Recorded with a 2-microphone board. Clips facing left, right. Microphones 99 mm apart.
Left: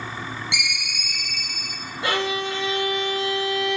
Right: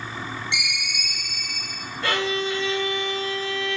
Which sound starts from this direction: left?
A ringtone, at 0.5 s.